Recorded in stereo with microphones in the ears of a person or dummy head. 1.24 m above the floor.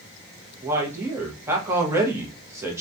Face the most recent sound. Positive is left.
turn(degrees=-10)  # may be behind; listen again after turning